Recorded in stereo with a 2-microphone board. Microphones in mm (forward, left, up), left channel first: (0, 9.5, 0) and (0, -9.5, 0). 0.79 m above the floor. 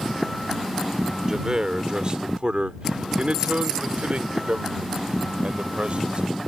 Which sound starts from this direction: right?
A man speaking, at 1.3 s.